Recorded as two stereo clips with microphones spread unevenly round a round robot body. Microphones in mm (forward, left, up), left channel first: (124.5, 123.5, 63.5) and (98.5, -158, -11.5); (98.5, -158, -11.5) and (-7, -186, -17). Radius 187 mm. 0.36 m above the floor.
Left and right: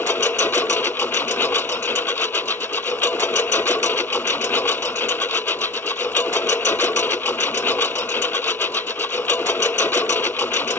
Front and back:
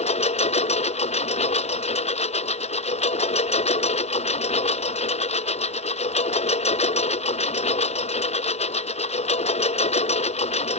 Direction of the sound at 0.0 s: Straight ahead.